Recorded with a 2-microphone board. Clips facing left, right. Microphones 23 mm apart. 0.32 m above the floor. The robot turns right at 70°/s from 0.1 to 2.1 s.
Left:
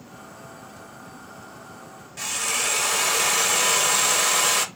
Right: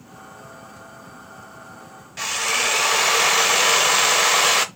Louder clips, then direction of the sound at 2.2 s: Right 4 dB; 25° right (ahead or behind).